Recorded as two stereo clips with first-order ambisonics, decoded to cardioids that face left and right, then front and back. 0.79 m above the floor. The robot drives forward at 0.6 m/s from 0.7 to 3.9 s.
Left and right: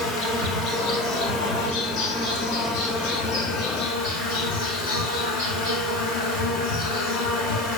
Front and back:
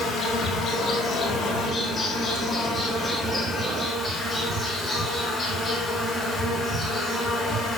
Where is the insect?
65° left, 5.5 m; by 7.8 s 90° left, 5 m.